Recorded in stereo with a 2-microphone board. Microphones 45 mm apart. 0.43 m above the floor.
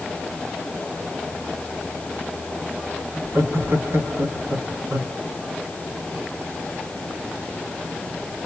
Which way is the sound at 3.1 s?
65° right (ahead or behind).